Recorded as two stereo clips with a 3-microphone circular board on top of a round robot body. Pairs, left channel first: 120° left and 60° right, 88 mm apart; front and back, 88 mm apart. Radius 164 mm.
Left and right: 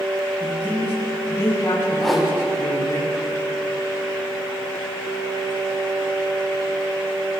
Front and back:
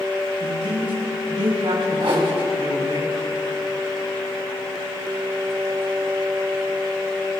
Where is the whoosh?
150° right, 3 m.